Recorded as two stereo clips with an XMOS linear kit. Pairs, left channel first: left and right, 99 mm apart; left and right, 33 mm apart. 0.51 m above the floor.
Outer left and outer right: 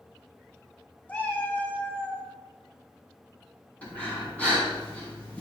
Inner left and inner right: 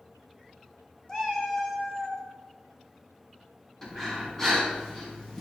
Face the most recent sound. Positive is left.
turn(degrees=15)  # may be behind; listen again after turning